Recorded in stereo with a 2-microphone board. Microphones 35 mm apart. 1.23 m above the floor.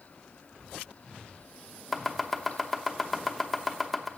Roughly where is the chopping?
Centre.